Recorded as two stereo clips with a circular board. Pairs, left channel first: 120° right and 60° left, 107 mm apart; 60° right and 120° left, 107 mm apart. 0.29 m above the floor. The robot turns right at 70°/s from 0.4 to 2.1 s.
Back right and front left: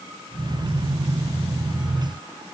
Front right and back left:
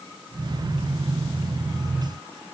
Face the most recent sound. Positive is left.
No sound to turn to.